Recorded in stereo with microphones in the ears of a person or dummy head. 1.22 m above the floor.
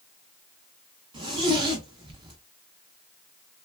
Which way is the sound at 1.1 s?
25° right (ahead or behind).